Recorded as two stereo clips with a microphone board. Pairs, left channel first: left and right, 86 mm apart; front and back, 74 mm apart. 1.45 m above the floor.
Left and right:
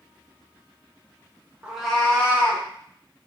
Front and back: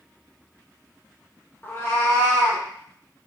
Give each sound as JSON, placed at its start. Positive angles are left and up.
{"t": 1.6, "sound": "a cat meowing", "azimuth_deg": -30, "distance_m": 0.6}